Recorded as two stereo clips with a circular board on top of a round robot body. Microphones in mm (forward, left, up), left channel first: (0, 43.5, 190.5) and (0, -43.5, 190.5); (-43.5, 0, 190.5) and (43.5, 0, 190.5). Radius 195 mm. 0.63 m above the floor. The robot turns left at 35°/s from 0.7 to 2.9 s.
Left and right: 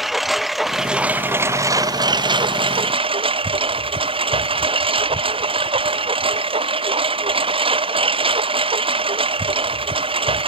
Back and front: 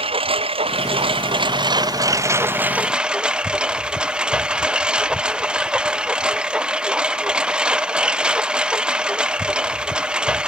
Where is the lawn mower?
Straight ahead; by 10.5 s 80° right.